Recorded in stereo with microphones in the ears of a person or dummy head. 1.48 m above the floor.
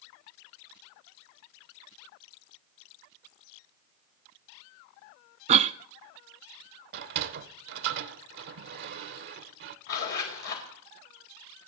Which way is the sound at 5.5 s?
35° right (ahead or behind).